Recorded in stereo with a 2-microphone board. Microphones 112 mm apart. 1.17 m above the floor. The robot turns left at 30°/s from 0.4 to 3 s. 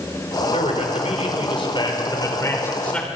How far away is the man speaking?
About 5 m.